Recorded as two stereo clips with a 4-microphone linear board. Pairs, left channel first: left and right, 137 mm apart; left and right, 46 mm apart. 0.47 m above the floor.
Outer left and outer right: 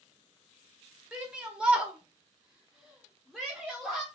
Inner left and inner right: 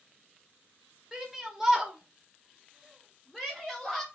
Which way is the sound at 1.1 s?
10° right (ahead or behind).